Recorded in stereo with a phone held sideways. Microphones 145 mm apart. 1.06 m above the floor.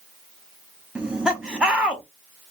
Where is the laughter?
5° right (ahead or behind), 0.7 m.